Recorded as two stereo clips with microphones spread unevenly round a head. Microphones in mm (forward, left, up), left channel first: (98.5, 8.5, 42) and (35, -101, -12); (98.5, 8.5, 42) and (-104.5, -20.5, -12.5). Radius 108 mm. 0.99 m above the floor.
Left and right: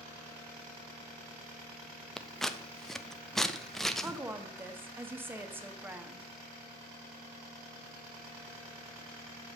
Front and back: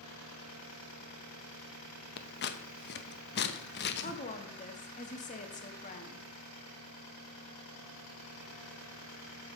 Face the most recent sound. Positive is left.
turn(degrees=-50)